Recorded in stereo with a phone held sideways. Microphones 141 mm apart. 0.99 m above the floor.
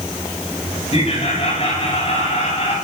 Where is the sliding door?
I don't hear a sliding door.